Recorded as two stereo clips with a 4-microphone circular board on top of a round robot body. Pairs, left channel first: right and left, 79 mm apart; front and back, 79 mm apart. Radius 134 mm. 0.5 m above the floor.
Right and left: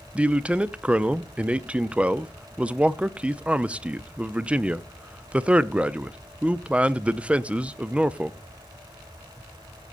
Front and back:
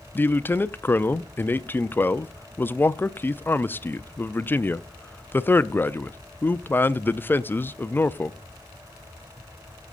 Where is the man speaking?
30° left, 0.7 m.